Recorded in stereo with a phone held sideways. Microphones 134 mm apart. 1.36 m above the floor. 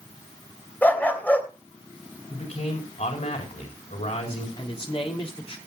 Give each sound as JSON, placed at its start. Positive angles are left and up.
{"t": 0.8, "sound": "a dog barking", "side_deg": 15, "distance_m": 2.5}
{"t": 2.3, "sound": "a man speaking", "side_deg": 75, "distance_m": 4.5}
{"t": 4.6, "sound": "a man speaking", "side_deg": 40, "distance_m": 3.5}